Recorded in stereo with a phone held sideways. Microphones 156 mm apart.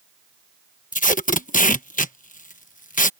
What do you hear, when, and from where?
0.9 s tape being pulled: 55° left (ahead or behind)